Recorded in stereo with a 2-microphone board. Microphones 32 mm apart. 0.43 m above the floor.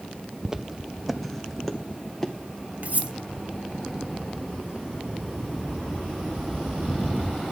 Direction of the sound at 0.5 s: 15° right (ahead or behind).